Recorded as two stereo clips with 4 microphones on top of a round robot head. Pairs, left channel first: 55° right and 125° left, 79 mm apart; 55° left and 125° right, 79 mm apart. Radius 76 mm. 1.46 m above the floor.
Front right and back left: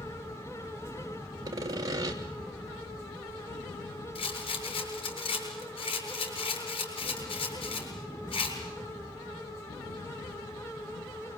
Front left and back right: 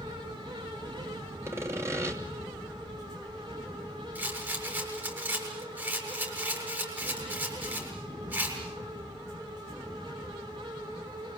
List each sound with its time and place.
1.4 s sawing: 175° left, 3 m
4.2 s a rattle: 60° right, 7.5 m